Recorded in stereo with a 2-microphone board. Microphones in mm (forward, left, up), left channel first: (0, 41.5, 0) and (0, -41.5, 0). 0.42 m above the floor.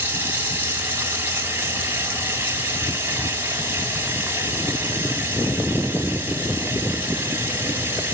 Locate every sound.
0.0 s running water: 25° right (ahead or behind), 2.5 m